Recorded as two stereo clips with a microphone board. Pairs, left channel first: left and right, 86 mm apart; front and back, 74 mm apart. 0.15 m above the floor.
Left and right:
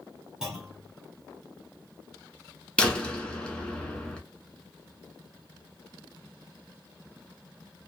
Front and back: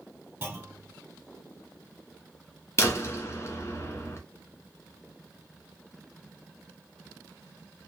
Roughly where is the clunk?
Behind.